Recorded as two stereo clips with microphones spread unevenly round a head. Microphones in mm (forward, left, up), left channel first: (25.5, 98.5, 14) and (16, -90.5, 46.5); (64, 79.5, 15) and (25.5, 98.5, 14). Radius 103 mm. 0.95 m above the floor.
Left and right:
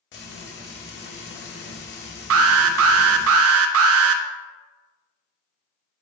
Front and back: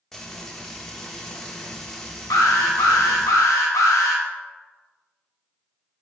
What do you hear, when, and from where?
0.1 s frying: 55° left, 1.6 m
2.3 s an alarm: 75° right, 0.5 m